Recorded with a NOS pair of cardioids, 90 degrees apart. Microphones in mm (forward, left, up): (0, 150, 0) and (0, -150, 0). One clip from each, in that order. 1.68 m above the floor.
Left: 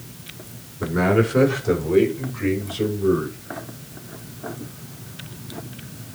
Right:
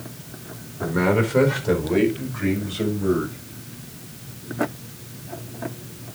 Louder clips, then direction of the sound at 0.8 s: Left 1 dB; 5° left.